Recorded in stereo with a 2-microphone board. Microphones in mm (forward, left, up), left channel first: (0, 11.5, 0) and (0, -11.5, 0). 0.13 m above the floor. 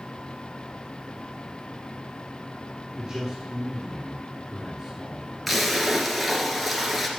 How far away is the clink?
I don't hear a clink.